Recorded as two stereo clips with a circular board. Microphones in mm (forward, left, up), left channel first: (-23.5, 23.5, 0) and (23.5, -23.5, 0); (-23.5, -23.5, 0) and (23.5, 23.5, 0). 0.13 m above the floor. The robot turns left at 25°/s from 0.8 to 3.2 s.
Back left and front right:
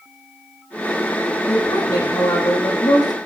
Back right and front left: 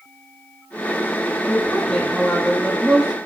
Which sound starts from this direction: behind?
A woman speaking, at 1.5 s.